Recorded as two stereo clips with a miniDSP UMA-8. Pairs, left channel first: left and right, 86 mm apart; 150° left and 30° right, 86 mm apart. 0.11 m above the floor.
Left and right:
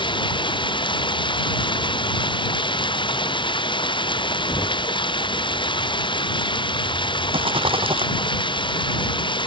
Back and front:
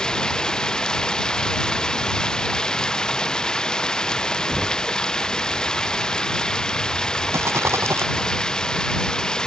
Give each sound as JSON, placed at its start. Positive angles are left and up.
{"t": 0.0, "sound": "running water", "azimuth_deg": 70}
{"t": 4.5, "sound": "knocking", "azimuth_deg": 55}
{"t": 7.3, "sound": "a rattle", "azimuth_deg": -90}